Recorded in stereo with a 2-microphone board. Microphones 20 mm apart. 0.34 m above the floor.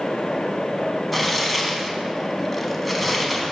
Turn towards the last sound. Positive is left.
turn(degrees=0)  # may be behind; listen again after turning